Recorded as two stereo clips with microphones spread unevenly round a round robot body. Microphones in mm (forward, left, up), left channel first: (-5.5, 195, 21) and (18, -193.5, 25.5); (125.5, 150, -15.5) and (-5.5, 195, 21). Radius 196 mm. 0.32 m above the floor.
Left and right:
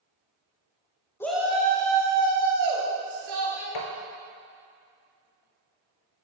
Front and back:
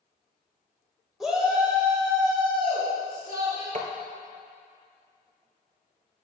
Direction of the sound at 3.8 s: 130° left.